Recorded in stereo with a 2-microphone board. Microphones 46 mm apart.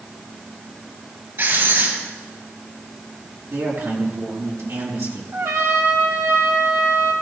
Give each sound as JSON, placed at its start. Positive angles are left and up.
{"t": 1.4, "sound": "writing", "side_deg": -55, "distance_m": 7.5}
{"t": 3.5, "sound": "a man speaking", "side_deg": -60, "distance_m": 5.5}
{"t": 5.3, "sound": "a trumpet", "side_deg": -70, "distance_m": 2.0}